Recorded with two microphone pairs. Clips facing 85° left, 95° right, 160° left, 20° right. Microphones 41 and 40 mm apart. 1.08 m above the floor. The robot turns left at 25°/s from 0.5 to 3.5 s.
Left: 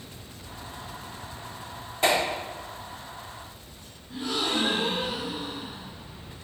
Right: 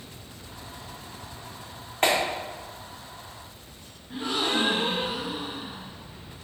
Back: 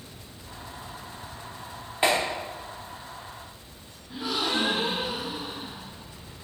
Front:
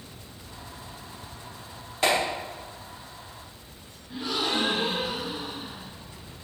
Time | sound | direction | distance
2.0 | a clap | 130° right | 2.5 m
4.1 | a gasp | 115° right | 0.9 m